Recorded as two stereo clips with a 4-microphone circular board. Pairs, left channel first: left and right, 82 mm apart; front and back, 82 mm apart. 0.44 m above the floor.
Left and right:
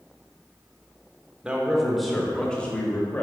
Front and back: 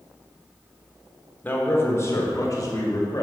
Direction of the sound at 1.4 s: 30° right.